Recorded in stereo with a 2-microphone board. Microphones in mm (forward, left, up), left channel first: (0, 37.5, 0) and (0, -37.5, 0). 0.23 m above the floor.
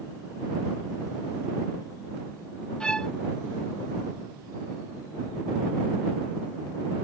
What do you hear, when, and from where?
2.8 s a violin: 10° left (ahead or behind)